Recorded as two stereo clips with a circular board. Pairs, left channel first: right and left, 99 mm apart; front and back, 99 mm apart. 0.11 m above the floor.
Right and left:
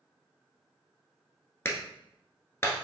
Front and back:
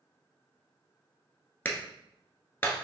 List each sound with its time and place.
1.6 s a clap: 50° right, 1.0 m